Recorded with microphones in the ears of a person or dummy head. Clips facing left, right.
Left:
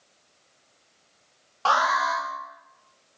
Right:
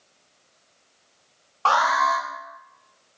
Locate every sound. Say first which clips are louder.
1.6 s an alarm: right 3 dB; centre (ahead or behind), 3 m